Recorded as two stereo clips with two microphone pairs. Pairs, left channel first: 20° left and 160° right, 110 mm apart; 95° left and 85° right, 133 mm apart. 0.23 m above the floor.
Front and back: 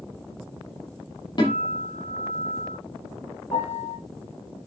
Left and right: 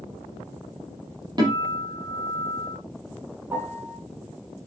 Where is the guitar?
20° right, 7 m.